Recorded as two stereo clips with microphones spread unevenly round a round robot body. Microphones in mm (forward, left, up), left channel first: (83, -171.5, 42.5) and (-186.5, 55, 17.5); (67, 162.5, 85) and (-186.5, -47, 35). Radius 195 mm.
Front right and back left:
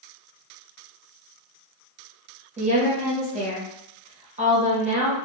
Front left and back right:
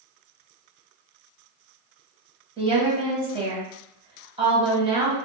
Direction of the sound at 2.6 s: Straight behind.